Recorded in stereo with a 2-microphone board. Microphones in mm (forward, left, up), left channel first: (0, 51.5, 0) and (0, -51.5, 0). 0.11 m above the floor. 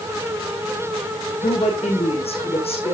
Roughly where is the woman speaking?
Left.